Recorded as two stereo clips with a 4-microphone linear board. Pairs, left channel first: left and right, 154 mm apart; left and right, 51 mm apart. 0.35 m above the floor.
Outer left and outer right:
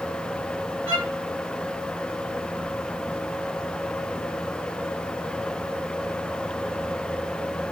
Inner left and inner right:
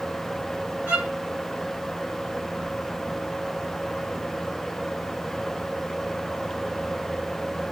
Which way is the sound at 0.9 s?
35° right (ahead or behind).